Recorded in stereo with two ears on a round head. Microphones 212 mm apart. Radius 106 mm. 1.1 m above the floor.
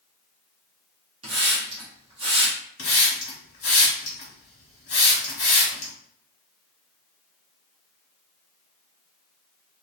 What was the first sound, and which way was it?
A hiss, 25° right (ahead or behind).